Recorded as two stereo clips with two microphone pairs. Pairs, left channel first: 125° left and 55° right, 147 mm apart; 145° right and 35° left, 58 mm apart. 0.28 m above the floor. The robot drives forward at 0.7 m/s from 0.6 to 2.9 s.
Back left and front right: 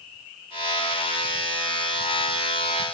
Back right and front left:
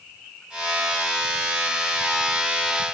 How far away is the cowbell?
I don't hear a cowbell.